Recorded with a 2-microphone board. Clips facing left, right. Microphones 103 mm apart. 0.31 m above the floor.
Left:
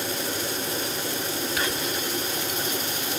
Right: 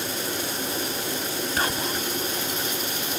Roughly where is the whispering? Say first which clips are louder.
Right 1 dB; right.